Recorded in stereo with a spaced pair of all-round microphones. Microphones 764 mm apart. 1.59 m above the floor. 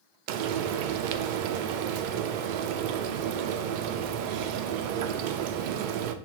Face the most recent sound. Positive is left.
turn(degrees=-80)